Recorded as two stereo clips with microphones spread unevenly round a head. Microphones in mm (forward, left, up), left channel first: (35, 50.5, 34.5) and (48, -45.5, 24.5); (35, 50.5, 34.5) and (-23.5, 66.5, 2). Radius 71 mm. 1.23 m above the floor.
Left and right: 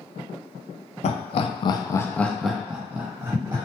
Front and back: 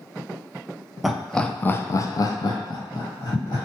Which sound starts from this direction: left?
Laughter, at 1.0 s.